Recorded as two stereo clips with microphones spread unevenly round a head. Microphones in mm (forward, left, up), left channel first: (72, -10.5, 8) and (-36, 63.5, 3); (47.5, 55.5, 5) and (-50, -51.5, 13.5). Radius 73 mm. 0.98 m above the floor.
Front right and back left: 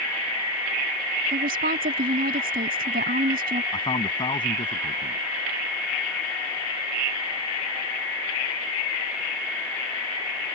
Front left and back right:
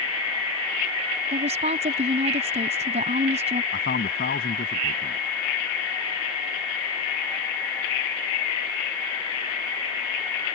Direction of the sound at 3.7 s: 20° left.